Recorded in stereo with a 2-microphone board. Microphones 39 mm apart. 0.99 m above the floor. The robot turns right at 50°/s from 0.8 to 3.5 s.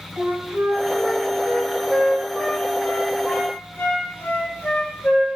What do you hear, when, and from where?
0.2 s a flute: 80° right, 4.5 m; by 5.2 s 55° left (ahead or behind), 4.5 m